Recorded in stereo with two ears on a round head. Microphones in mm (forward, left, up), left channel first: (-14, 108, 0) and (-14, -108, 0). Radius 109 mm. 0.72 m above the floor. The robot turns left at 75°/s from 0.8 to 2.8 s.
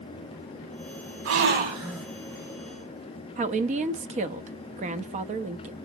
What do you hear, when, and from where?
1.2 s a gasp: 115° right, 1.0 m; by 2.1 s straight behind, 1.0 m
3.4 s a woman speaking: 30° right (ahead or behind), 0.5 m